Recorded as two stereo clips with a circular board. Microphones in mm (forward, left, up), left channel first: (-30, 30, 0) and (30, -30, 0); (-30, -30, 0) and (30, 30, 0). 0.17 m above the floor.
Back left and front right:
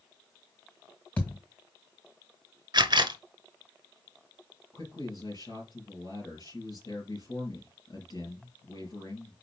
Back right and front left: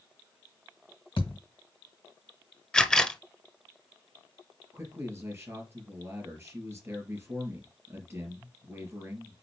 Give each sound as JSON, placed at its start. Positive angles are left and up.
{"t": 1.2, "sound": "a thud", "azimuth_deg": -155, "distance_m": 1.9}
{"t": 2.7, "sound": "a camera shutter", "azimuth_deg": -55, "distance_m": 0.9}
{"t": 4.7, "sound": "a man speaking", "azimuth_deg": 105, "distance_m": 4.0}